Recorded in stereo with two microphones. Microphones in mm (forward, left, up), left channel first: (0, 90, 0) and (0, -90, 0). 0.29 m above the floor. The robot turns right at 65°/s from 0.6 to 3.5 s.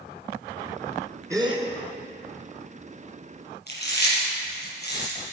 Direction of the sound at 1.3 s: 15° right (ahead or behind).